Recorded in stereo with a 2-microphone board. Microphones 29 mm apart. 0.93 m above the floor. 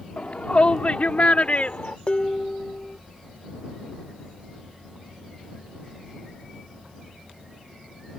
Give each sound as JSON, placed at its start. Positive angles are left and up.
{"t": 0.2, "sound": "a shout", "side_deg": 50}
{"t": 2.1, "sound": "dishes clattering", "side_deg": 45}